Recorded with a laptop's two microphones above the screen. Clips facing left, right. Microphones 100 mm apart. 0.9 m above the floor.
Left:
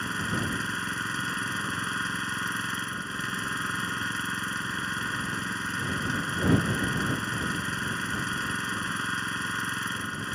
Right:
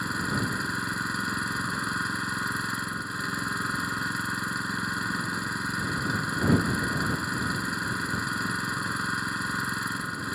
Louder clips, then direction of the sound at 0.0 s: Right 1 dB; 10° right (ahead or behind).